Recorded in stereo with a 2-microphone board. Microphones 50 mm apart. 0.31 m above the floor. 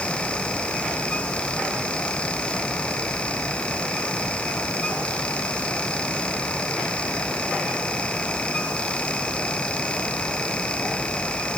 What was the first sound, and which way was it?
Only background noise.